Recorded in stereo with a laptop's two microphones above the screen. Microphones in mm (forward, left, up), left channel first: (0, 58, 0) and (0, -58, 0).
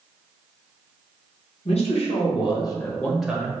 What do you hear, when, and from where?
1.6 s a man speaking: 65° left (ahead or behind), 1.1 m; by 3.5 s 20° right (ahead or behind), 0.6 m